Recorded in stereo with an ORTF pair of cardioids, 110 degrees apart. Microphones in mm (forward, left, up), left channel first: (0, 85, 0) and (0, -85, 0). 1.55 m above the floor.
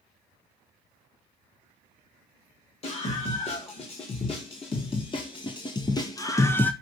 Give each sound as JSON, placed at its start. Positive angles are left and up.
{"t": 2.8, "sound": "a scream", "azimuth_deg": 35, "distance_m": 2.5}